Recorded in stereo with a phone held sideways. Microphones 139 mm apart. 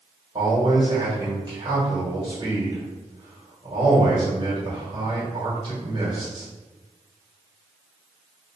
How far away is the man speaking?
About 1.7 m.